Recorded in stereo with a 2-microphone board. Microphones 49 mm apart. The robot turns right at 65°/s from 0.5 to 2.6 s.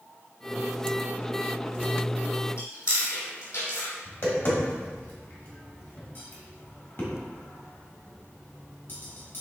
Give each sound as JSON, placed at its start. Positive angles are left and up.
{"t": 2.6, "sound": "chewing", "side_deg": 75, "distance_m": 1.9}
{"t": 4.0, "sound": "tapping", "side_deg": 50, "distance_m": 1.5}